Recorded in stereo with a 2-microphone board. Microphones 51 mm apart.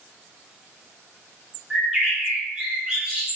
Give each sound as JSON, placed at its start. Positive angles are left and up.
{"t": 1.7, "sound": "a bird", "side_deg": -15, "distance_m": 1.0}